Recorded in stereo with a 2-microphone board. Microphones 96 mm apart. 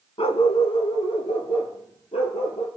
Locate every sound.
0.2 s a dog barking: 75° left (ahead or behind), 0.8 m; by 2.7 s 80° left, 3 m